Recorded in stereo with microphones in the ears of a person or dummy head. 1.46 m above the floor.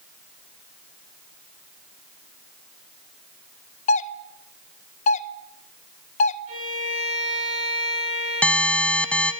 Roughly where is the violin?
Right.